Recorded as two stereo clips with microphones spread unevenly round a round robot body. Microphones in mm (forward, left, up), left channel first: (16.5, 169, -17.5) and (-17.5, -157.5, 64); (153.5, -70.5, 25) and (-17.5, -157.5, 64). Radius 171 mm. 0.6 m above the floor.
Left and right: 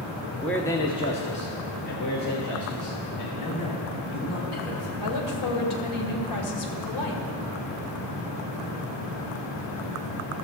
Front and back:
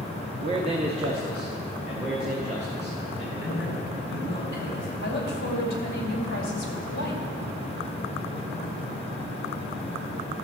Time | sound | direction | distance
0.4 | a man speaking | 150° left | 0.7 m
3.4 | a man speaking | 65° left | 4.5 m
5.0 | a woman speaking | 65° left | 2 m